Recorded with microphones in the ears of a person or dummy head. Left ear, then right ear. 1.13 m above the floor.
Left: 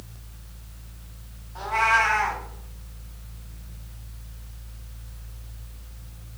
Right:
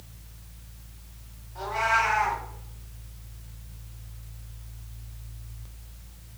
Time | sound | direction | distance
1.6 | a cat meowing | 35° left (ahead or behind) | 0.7 m